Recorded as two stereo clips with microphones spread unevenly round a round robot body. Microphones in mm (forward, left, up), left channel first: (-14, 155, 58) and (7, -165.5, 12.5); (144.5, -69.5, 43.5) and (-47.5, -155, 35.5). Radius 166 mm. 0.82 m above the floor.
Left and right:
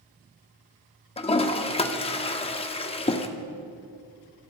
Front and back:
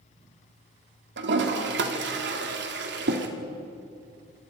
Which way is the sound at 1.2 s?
165° left.